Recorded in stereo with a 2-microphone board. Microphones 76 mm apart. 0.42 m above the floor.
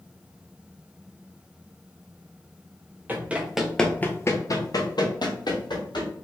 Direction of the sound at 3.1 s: 25° right (ahead or behind).